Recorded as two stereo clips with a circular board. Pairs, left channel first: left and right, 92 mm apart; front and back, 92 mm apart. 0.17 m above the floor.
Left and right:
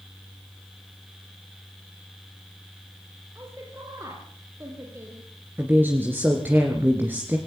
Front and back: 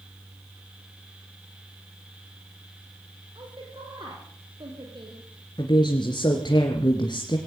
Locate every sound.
3.4 s a woman speaking: 150° right, 4.5 m
5.6 s a woman speaking: 25° right, 2.5 m